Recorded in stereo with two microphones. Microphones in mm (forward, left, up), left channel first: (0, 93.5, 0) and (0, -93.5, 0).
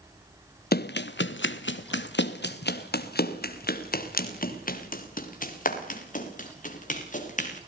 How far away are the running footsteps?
About 0.9 m.